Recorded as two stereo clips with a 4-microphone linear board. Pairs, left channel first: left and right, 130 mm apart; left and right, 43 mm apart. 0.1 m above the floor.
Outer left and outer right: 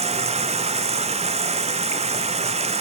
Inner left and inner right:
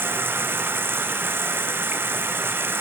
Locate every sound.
0.0 s running water: 60° right (ahead or behind), 0.9 m